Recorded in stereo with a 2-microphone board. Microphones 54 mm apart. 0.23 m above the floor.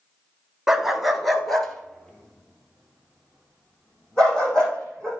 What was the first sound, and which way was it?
A dog barking, 10° right (ahead or behind).